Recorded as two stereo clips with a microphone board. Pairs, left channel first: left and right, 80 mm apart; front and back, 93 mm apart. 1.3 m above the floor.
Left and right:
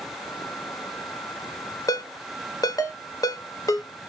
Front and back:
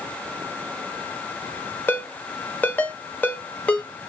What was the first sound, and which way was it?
A ringtone, 70° left.